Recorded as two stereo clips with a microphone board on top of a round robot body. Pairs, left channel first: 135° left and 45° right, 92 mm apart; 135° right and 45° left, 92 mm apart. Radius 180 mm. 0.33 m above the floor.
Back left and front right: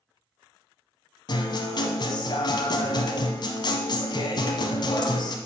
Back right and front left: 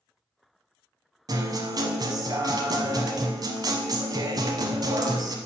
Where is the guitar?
95° left, 0.7 m.